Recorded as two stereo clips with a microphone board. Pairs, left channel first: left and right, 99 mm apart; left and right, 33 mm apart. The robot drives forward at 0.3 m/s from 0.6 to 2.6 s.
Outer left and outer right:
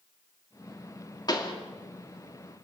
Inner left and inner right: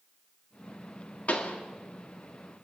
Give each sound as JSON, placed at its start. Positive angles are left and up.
{"t": 1.3, "sound": "a pop", "side_deg": 45, "distance_m": 2.5}